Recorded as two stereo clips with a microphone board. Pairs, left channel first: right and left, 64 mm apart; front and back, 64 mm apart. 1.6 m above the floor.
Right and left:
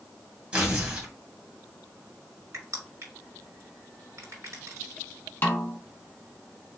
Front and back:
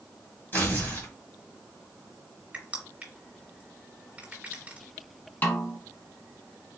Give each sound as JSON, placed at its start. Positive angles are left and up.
{"t": 0.5, "sound": "tearing paper", "azimuth_deg": 30, "distance_m": 1.8}
{"t": 2.5, "sound": "crushing", "azimuth_deg": 115, "distance_m": 2.0}
{"t": 5.4, "sound": "a snare drum", "azimuth_deg": -45, "distance_m": 1.1}